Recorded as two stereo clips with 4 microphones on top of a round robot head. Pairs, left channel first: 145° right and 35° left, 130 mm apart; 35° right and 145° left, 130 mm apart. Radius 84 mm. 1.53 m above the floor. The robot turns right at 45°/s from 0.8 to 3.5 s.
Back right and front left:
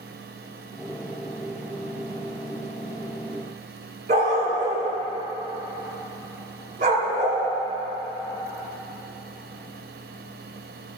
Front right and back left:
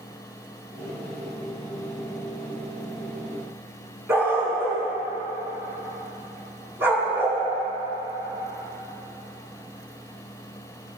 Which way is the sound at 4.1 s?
70° left.